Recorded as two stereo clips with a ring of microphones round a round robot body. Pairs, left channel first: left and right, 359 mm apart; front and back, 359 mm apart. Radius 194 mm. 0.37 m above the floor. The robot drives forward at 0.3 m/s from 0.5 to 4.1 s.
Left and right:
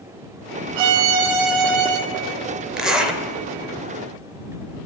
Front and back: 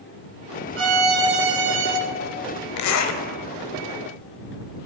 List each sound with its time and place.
0.8 s a violin: 120° right, 0.5 m; by 2.0 s 145° right, 0.8 m
2.8 s a zipper: straight ahead, 0.8 m; by 3.2 s 5° right, 0.7 m